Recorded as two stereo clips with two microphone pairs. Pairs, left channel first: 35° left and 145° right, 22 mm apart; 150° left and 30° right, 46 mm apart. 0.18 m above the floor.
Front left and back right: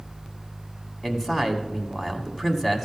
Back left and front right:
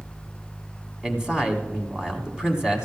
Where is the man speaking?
5° right, 1.5 m.